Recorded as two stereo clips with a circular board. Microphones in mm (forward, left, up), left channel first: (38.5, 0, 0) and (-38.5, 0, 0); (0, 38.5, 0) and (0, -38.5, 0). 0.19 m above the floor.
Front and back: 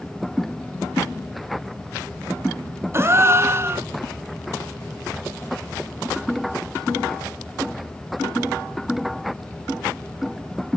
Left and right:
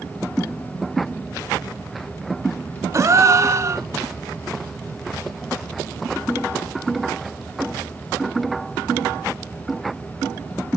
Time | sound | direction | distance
2.9 | a gasp | 130° right | 0.7 m